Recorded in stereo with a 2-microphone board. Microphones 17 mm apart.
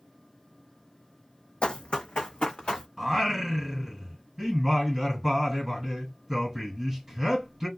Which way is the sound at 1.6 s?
75° left (ahead or behind).